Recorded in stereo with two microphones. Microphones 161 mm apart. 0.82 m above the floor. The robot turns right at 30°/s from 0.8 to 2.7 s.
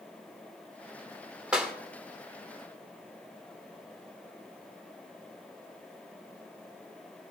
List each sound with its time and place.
1.5 s a clap: 5° right (ahead or behind), 1.6 m; by 1.7 s centre (ahead or behind), 1.6 m